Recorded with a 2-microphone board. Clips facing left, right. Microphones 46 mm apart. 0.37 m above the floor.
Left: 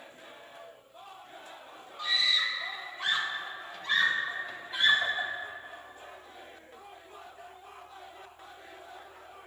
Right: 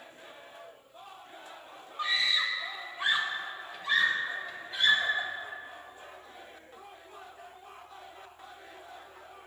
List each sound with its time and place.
2.0 s a scream: 40° right (ahead or behind), 1.3 m; by 5.3 s 15° left (ahead or behind), 1.8 m